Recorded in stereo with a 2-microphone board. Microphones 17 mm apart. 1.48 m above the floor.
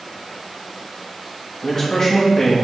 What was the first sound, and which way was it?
A man speaking, 30° left (ahead or behind).